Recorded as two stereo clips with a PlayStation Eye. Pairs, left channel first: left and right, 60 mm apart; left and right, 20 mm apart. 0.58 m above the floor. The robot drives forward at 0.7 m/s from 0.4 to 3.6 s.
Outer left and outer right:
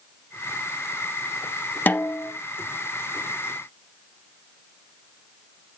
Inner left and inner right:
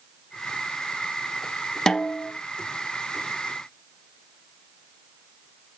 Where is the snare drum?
35° left (ahead or behind), 0.5 m; by 2.3 s 20° left (ahead or behind), 0.8 m.